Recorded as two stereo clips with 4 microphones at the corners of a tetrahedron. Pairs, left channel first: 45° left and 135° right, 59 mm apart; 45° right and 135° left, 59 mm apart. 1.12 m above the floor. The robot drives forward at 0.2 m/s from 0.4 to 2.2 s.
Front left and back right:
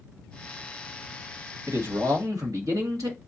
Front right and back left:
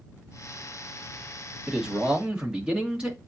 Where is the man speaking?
150° right, 1.5 m.